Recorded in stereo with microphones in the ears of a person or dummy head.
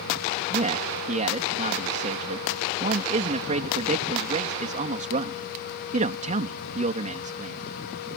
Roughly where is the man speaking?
Right.